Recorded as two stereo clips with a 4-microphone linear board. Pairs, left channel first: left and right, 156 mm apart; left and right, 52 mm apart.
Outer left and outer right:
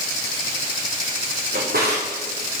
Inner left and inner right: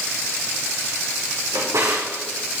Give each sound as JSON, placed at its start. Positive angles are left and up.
{"t": 1.5, "sound": "a drawer", "side_deg": -80, "distance_m": 3.5}